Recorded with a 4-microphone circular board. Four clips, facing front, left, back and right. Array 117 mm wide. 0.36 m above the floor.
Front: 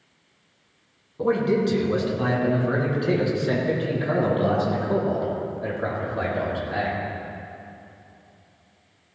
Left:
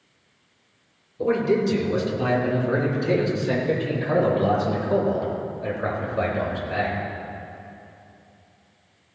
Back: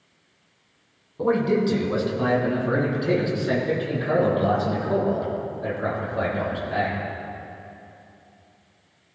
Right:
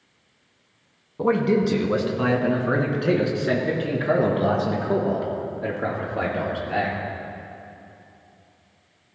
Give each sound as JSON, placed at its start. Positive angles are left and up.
{"t": 1.2, "sound": "a man speaking", "azimuth_deg": -100, "distance_m": 2.5}